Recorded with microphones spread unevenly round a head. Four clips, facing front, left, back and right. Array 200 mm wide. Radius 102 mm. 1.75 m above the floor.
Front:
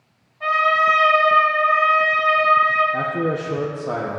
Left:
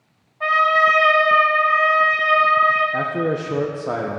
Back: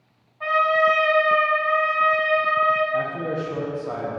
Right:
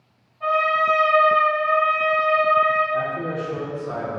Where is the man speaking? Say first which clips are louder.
Left 3 dB, front 3 dB; 60° left, 1.3 m.